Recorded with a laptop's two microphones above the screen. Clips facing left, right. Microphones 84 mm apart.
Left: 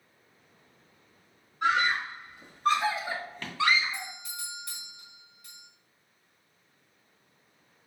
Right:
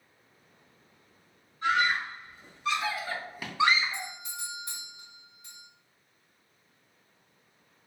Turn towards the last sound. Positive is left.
turn(degrees=-25)  # may be behind; listen again after turning